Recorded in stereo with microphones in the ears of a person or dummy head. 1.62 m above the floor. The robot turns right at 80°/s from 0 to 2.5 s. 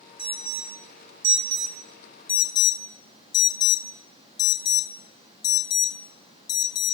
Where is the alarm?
25° right (ahead or behind), 3 m; by 6.9 s 30° left (ahead or behind), 3 m.